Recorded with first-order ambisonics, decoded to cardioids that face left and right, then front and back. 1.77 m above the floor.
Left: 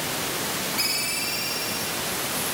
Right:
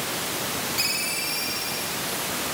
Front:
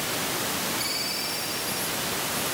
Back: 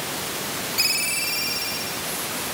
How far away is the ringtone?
About 5 m.